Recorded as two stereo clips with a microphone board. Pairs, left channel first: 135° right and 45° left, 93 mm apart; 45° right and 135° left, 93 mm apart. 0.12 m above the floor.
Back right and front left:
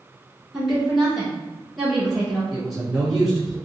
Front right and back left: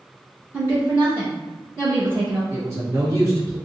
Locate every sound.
0.5 s a woman speaking: 125° left, 1.1 m
2.5 s a man speaking: 130° left, 1.6 m